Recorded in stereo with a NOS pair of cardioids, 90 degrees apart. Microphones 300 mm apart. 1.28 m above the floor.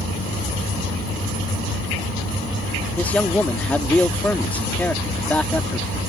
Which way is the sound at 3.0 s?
5° left.